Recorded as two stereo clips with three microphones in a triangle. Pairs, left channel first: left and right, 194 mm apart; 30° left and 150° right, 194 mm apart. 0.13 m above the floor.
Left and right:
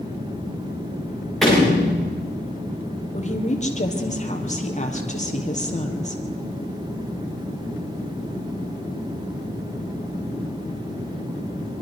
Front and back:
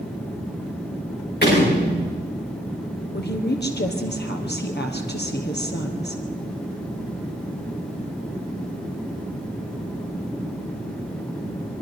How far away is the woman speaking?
About 3 m.